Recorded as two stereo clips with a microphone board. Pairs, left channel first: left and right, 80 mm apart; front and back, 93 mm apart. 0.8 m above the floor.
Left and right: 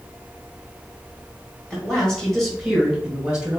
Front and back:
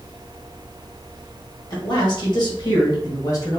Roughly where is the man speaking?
Ahead.